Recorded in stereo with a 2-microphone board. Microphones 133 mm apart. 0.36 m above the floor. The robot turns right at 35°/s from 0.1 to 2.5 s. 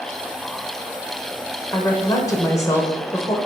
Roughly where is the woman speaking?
Left.